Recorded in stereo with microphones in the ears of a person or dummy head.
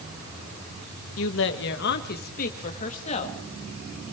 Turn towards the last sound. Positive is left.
turn(degrees=35)  # may be behind; listen again after turning